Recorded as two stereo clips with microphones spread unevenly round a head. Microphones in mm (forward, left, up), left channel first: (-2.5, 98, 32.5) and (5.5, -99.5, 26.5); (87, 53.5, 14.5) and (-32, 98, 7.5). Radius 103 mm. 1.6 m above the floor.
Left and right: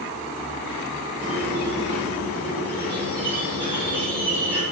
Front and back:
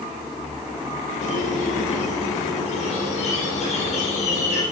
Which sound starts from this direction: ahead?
A squeak, at 1.2 s.